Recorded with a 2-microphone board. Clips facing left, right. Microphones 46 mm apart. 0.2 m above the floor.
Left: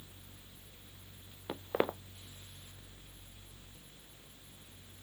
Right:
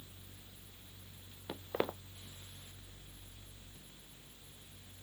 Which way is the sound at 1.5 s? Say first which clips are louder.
Left 4 dB; 15° left (ahead or behind).